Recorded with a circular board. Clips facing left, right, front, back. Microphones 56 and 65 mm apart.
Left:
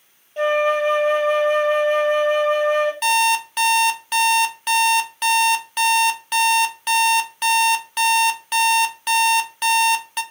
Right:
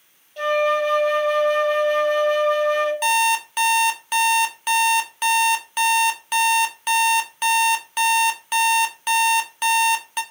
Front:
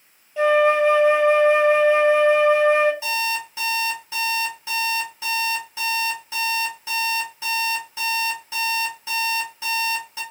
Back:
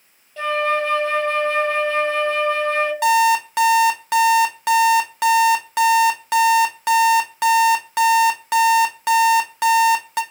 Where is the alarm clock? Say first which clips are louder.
Left 1 dB, back 11 dB; 175° right, 0.6 m.